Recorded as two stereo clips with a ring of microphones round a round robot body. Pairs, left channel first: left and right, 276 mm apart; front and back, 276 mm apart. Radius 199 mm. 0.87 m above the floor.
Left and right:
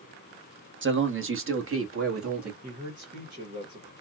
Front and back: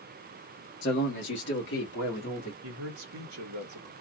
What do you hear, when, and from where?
0.8 s a man speaking: 50° right, 1.2 m; by 2.5 s 55° right, 2 m
2.6 s a man speaking: 150° right, 1.0 m